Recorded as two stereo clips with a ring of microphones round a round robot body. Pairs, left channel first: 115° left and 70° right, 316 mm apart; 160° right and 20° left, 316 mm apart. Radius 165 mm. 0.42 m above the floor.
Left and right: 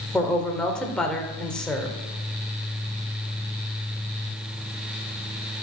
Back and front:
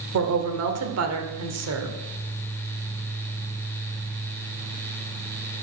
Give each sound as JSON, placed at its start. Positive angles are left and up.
{"t": 0.1, "sound": "a woman speaking", "azimuth_deg": 25, "distance_m": 1.9}